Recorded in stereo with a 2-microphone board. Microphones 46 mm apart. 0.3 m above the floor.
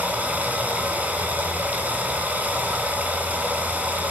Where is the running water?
30° right (ahead or behind), 3 m.